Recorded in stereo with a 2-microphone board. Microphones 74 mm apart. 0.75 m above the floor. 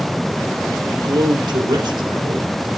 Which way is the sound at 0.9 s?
75° right (ahead or behind).